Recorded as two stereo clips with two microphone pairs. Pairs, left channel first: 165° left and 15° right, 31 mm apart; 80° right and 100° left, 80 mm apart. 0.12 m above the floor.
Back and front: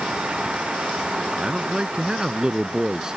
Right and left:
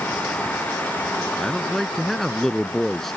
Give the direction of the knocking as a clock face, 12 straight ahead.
I don't hear knocking.